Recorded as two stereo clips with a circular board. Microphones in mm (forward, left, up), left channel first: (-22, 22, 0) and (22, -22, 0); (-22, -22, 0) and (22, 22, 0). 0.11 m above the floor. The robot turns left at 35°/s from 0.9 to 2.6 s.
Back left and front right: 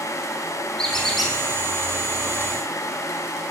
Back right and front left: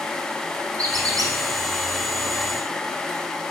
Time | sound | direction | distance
0.8 | a squeak | 55° left | 2 m